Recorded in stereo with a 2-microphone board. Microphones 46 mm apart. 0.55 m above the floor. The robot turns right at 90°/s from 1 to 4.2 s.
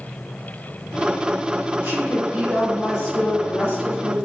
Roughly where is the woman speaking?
Right.